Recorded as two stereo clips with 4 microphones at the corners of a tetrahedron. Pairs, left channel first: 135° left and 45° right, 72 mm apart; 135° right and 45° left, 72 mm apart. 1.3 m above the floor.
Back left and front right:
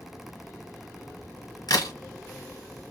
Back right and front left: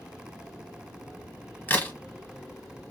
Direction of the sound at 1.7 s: 165° left.